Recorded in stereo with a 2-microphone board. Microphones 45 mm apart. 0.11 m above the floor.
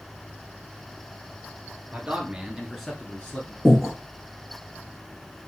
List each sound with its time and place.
1.9 s a man speaking: 30° right (ahead or behind), 1.5 m; by 3.5 s 40° left (ahead or behind), 1.3 m
3.6 s breathing: centre (ahead or behind), 1.3 m